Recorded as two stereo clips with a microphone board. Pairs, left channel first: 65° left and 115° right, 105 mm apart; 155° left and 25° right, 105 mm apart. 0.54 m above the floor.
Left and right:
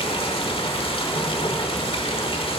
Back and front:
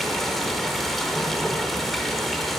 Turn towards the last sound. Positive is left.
turn(degrees=70)